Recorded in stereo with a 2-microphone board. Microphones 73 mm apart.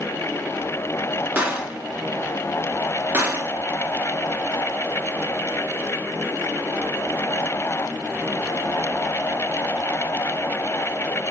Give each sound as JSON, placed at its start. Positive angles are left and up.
{"t": 1.4, "sound": "a gunshot", "side_deg": -25, "distance_m": 1.0}